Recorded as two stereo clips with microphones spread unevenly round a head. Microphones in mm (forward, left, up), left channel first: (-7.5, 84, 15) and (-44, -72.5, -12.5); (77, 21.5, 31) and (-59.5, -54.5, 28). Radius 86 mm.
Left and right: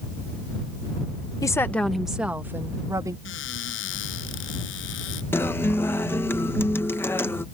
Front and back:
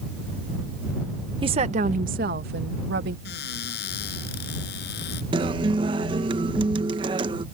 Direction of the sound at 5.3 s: 145° left.